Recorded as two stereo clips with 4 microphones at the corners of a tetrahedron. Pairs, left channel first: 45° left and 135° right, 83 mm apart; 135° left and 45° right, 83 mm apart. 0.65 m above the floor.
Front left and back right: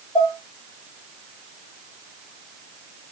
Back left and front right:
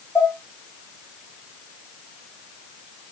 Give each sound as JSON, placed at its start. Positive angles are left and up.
{"t": 0.1, "sound": "dishes clattering", "azimuth_deg": 75, "distance_m": 3.0}